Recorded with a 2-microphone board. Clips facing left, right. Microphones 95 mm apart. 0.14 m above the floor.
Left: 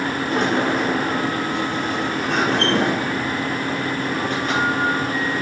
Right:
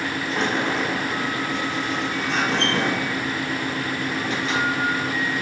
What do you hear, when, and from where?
0.3 s a sliding door: 55° left (ahead or behind), 4.5 m